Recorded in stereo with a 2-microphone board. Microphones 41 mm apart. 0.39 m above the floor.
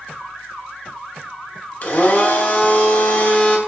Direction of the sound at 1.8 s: 40° left (ahead or behind).